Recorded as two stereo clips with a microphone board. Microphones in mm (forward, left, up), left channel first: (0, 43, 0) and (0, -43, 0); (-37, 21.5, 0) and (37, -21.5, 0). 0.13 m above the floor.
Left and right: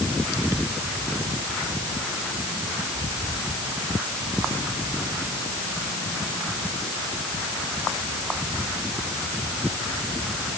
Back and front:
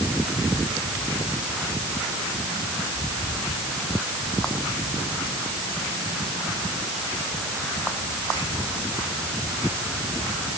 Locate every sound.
Only background noise.